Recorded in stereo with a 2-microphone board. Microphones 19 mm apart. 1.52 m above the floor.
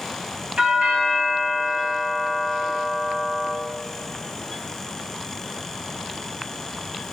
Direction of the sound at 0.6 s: 75° right (ahead or behind).